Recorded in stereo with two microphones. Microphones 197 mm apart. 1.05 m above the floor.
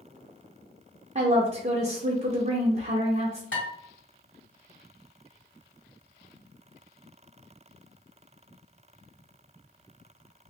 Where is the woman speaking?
35° right (ahead or behind), 0.6 m.